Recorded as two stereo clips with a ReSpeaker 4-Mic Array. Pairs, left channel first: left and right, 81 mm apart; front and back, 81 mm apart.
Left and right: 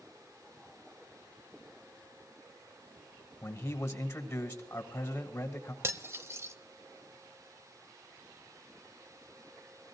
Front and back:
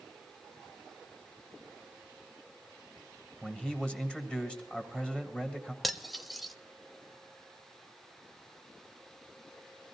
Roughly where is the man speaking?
Left.